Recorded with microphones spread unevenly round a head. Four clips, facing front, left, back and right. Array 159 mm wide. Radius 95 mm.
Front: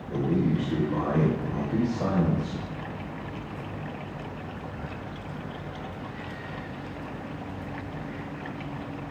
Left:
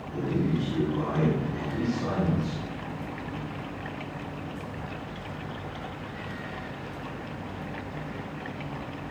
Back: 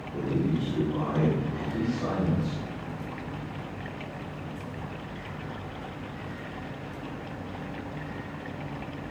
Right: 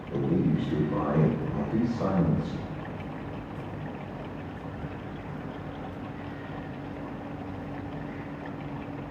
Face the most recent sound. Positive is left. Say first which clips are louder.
# right 2 dB, front 3 dB
turn(degrees=-25)